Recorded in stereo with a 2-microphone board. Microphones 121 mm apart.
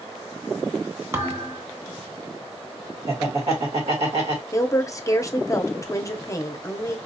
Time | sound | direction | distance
1.1 | a thud | 25° right (ahead or behind) | 1.0 m
3.1 | laughter | 60° right (ahead or behind) | 1.7 m
4.5 | a woman speaking | 30° left (ahead or behind) | 0.7 m